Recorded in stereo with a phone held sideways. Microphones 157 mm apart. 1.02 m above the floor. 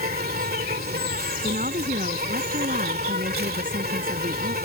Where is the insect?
75° right (ahead or behind).